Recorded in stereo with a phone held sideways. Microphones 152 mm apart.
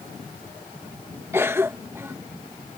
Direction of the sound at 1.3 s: 15° right (ahead or behind).